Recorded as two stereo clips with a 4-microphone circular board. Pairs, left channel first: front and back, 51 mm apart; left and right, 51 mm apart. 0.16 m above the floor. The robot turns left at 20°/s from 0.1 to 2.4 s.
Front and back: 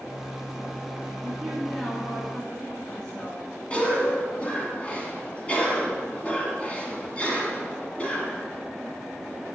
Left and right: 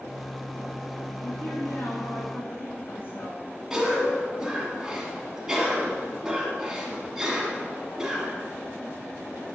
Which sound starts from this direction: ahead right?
A cough, at 3.7 s.